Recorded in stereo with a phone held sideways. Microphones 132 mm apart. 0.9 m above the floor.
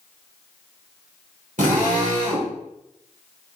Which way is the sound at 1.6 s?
75° right (ahead or behind).